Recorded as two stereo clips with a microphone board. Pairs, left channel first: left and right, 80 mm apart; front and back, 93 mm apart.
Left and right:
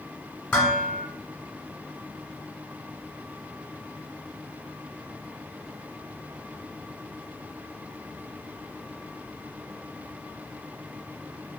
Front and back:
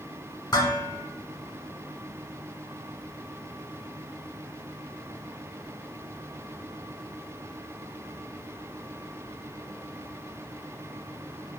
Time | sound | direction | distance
0.5 | dishes clattering | 20° left | 1.3 m